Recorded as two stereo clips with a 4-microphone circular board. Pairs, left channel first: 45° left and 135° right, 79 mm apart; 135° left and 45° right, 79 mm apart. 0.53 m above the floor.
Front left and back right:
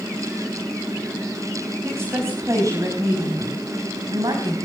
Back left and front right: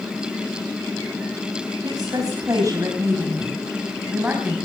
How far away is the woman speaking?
About 4.5 m.